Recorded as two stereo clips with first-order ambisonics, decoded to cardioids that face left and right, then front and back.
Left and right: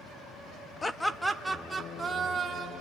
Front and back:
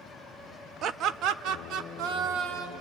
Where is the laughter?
165° left, 0.7 m; by 2.8 s 155° right, 1.8 m.